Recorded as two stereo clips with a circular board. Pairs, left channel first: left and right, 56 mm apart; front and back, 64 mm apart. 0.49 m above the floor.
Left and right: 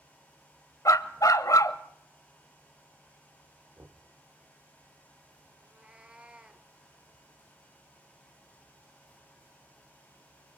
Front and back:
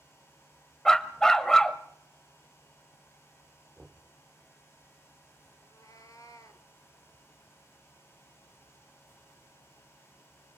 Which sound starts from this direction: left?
A dog barking, at 0.8 s.